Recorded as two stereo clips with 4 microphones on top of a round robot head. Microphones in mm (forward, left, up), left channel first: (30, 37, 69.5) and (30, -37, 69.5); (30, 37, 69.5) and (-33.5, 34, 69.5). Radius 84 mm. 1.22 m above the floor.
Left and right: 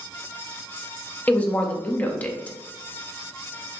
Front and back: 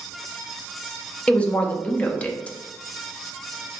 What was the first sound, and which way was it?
A woman speaking, 50° left.